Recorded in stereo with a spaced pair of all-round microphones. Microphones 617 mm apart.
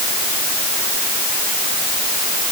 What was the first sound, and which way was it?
Only background noise.